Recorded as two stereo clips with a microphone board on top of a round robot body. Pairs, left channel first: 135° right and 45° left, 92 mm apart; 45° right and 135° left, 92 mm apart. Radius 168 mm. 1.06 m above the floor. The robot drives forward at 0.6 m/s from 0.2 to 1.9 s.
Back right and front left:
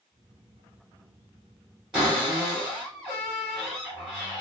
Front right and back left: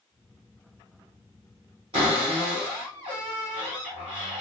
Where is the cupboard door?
125° left, 0.7 m.